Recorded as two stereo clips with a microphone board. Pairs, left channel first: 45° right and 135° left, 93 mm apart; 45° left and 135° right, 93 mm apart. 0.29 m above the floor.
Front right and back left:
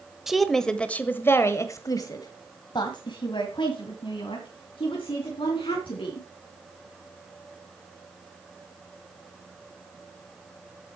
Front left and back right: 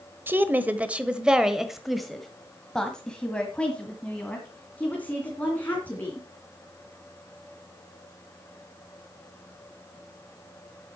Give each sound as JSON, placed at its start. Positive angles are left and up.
{"t": 0.3, "sound": "a woman speaking", "azimuth_deg": -140, "distance_m": 1.1}